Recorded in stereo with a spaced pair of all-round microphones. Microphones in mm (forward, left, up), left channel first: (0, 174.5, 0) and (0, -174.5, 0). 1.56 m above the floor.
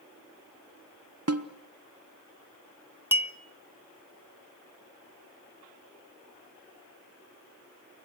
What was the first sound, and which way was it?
A snare drum, 45° right (ahead or behind).